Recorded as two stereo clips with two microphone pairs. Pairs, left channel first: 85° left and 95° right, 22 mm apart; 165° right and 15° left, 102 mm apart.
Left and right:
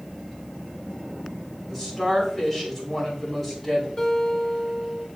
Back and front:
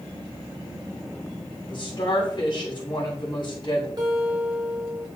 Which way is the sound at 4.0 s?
45° left.